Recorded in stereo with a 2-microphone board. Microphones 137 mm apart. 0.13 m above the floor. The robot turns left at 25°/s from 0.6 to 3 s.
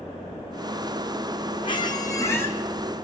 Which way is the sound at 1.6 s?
35° left (ahead or behind).